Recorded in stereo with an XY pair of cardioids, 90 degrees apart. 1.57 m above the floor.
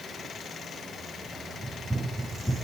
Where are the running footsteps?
5° right, 9 m.